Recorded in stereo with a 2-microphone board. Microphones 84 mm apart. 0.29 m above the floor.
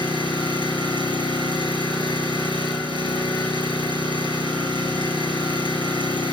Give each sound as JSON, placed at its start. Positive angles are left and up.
{"t": 0.0, "sound": "an engine running", "side_deg": 75, "distance_m": 4.5}